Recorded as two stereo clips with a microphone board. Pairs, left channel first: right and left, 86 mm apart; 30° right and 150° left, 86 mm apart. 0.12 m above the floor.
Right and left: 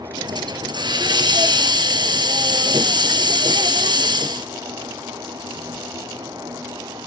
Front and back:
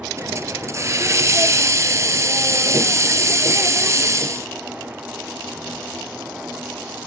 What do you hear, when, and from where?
0.2 s a hiss: 100° left, 0.8 m